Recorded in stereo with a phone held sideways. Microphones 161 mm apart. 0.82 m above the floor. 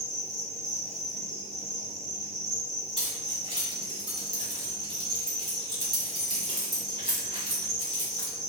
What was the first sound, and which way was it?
An insect, 40° right (ahead or behind).